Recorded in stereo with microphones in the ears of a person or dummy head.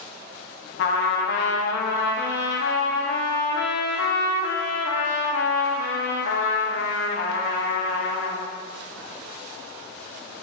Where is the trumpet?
55° left (ahead or behind), 0.6 m.